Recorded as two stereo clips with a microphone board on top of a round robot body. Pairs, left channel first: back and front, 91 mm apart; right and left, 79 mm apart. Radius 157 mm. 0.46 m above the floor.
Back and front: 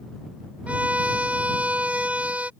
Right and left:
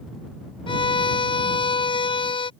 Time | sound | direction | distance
0.7 | a violin | 80° right | ?